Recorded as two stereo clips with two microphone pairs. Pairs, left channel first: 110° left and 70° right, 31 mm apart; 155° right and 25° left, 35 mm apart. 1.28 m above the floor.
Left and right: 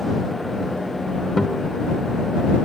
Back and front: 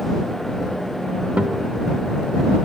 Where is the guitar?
30° left.